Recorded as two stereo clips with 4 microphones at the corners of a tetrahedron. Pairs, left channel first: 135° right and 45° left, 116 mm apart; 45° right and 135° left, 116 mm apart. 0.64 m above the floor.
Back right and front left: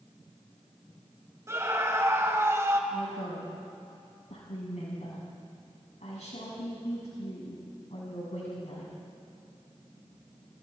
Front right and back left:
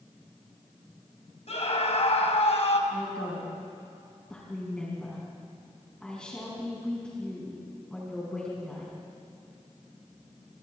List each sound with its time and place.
1.5 s a scream: 20° right, 3 m
2.9 s a woman speaking: 125° right, 6 m